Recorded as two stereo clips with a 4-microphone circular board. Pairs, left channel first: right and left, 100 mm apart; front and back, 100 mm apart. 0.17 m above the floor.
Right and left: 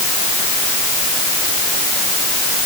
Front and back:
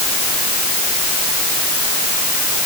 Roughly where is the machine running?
I don't hear a machine running.